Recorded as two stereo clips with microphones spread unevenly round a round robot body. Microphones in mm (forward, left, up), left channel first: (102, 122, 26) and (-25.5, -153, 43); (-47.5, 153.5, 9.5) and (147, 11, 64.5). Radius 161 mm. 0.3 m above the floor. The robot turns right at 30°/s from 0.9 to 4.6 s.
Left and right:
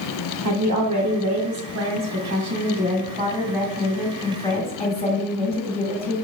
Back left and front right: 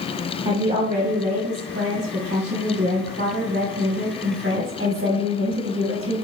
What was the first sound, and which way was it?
A woman speaking, 115° right.